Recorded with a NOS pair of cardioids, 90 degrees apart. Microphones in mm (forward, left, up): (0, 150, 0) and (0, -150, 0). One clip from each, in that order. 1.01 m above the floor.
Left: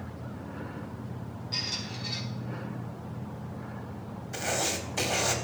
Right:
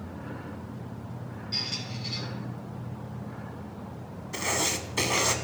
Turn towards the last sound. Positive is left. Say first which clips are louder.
# right 2 dB
turn(degrees=-10)